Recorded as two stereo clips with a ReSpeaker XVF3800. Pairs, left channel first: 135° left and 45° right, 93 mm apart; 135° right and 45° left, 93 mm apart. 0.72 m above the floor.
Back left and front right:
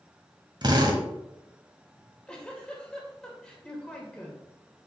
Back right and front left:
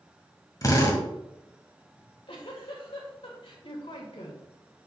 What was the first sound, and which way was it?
A drill, 80° right.